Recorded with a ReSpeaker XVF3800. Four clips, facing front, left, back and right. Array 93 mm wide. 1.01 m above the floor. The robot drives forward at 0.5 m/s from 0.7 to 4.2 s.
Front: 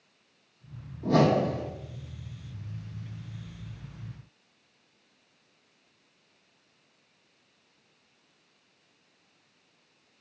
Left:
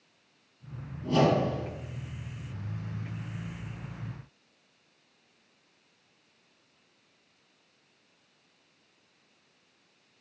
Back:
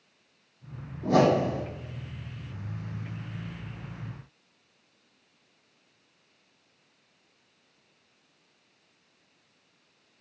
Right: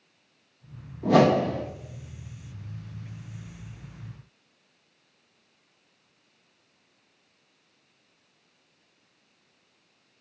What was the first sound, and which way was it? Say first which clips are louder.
A whoosh: right 5 dB, back 1 dB; 95° right.